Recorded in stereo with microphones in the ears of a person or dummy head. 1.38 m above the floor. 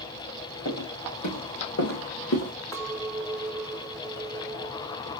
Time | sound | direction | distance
0.7 | footsteps | 65° left (ahead or behind) | 3.5 m
2.7 | a clink | 15° left (ahead or behind) | 1.4 m